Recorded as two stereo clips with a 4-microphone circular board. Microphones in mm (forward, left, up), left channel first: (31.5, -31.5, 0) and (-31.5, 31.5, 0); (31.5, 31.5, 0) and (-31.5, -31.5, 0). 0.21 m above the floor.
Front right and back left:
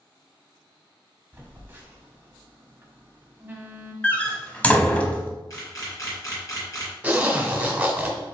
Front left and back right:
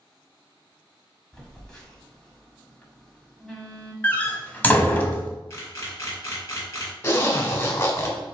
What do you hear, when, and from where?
1.3 s a phone buzzing: 115° left, 1.2 m
4.0 s a door slam: 5° left, 0.7 m
5.5 s a camera shutter: 5° right, 1.9 m
7.0 s a zipper: 75° left, 1.1 m